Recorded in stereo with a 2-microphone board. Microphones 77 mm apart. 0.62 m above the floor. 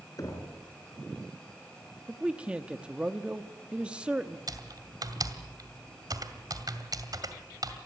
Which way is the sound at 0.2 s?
50° left (ahead or behind).